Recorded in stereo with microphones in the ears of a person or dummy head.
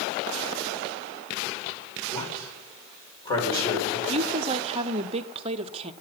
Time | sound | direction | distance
2.1 | a man speaking | 25° left (ahead or behind) | 5.5 m
4.1 | a woman speaking | 30° right (ahead or behind) | 0.7 m